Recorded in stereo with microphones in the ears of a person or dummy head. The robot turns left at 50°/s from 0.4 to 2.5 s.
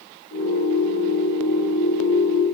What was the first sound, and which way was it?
Only background noise.